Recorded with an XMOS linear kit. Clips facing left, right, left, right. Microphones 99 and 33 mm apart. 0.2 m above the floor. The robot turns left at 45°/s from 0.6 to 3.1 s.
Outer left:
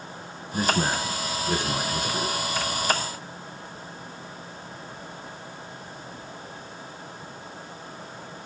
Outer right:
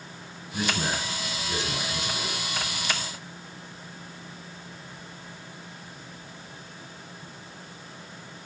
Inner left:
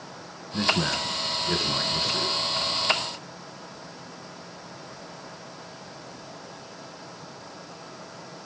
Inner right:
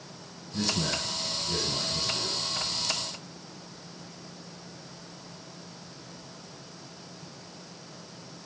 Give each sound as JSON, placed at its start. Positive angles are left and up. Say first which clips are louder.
{"t": 0.5, "sound": "a man speaking", "louder": "outer left 4 dB, inner left 5 dB", "azimuth_deg": 135, "distance_m": 1.8}